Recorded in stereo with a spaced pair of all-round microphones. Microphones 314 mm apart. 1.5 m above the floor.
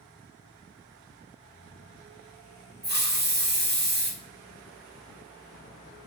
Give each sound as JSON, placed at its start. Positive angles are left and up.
{"t": 2.8, "sound": "a hiss", "side_deg": -30, "distance_m": 0.7}